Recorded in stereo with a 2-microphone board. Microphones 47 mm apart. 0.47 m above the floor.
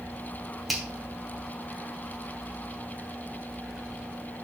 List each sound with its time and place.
0.7 s a finger snap: 5° right (ahead or behind), 2.5 m